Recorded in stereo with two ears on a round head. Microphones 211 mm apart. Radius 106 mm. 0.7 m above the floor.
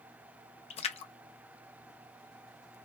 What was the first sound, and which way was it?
A splash, 30° left (ahead or behind).